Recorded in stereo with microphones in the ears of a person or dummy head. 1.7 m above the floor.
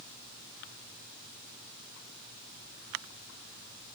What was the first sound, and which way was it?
Only background noise.